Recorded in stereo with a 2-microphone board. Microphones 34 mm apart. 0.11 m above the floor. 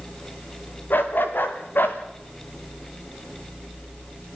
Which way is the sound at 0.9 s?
70° left (ahead or behind).